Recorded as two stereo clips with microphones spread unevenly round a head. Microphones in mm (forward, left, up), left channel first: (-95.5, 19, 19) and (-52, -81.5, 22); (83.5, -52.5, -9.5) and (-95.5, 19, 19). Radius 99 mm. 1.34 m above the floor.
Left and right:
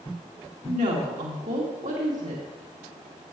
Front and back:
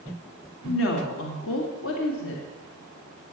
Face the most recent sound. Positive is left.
turn(degrees=-40)